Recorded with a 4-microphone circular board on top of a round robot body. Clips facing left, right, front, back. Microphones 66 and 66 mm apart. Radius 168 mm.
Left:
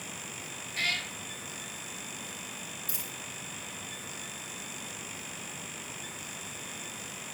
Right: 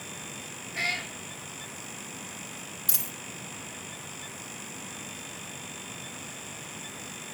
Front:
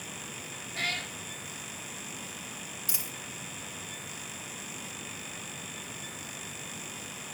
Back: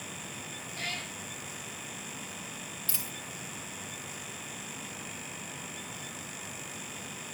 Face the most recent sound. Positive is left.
turn(degrees=-75)